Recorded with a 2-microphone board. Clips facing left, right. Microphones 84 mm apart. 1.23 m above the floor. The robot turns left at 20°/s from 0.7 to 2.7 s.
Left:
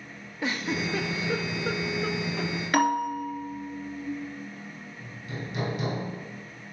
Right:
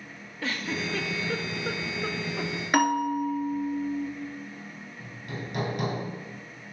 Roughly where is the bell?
Right.